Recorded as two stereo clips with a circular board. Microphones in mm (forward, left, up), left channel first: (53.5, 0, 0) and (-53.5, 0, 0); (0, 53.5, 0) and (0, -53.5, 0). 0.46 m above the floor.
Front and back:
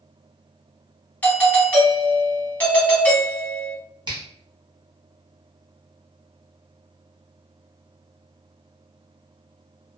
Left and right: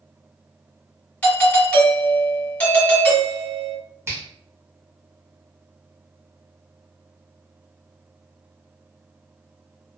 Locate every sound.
1.2 s a doorbell: 45° left, 1.3 m
4.1 s a finger snap: 150° right, 1.0 m